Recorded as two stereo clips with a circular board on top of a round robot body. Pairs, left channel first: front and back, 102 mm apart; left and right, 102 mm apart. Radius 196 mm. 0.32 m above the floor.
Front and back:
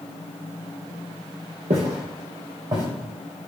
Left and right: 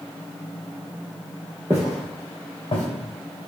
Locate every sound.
1.7 s footsteps: 160° right, 0.5 m; by 2.9 s 130° left, 1.2 m